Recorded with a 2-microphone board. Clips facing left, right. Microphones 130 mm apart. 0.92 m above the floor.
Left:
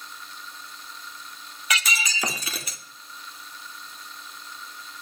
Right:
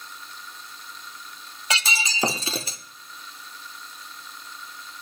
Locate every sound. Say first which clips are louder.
1.7 s breaking glass: right 1 dB; 30° right (ahead or behind), 0.5 m